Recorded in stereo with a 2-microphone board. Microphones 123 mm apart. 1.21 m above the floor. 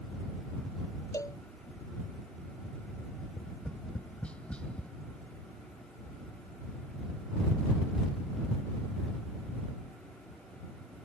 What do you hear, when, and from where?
1.1 s a cowbell: 25° left (ahead or behind)
3.3 s tapping: 10° left (ahead or behind)